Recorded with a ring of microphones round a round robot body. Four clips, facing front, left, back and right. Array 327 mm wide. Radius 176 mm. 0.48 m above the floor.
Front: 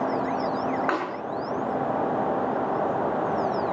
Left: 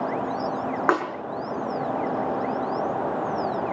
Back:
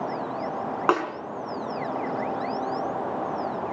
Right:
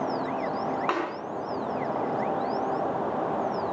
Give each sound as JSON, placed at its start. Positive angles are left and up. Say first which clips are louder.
{"t": 0.9, "sound": "a snare drum", "louder": "left 8 dB, back 4 dB", "azimuth_deg": 140, "distance_m": 4.5}